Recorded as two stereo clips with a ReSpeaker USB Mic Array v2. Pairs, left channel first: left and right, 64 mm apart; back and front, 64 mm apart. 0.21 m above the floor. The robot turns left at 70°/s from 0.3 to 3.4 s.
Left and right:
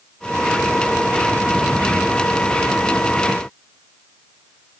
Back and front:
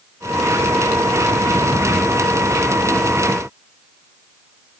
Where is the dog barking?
I don't hear a dog barking.